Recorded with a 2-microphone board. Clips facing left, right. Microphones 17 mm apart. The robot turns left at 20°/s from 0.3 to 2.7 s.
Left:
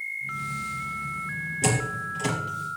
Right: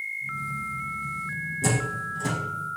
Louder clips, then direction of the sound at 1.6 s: Left 1 dB; 60° left (ahead or behind).